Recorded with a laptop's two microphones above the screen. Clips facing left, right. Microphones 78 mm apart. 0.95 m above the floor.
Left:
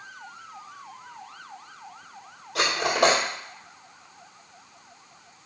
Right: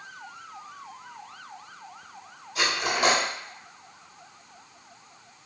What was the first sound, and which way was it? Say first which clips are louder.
Cutlery clinking: left 4 dB; 90° left.